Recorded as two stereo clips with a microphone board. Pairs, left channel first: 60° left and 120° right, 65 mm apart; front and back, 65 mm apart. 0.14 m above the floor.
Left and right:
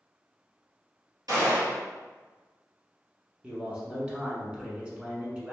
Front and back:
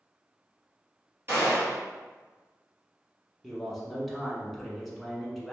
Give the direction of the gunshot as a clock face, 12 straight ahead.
4 o'clock.